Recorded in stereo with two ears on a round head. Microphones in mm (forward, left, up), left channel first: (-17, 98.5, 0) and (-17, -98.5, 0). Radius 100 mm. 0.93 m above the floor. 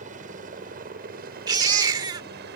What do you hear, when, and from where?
0.0 s a helicopter: 35° right (ahead or behind); by 2.6 s 45° right (ahead or behind)
1.5 s a baby crying: 20° right (ahead or behind)